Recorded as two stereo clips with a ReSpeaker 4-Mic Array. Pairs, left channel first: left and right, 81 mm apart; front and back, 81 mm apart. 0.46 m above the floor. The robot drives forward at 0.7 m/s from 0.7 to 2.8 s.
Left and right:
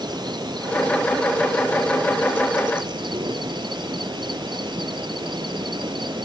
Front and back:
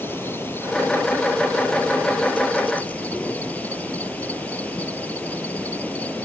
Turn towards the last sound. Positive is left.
turn(degrees=-70)